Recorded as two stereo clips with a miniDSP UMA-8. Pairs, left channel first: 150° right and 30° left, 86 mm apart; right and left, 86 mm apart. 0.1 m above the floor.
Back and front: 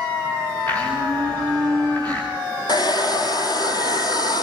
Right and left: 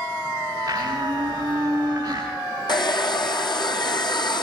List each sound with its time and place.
0.7 s a blender: 140° left, 10 m
2.7 s a hair dryer: 115° right, 1.7 m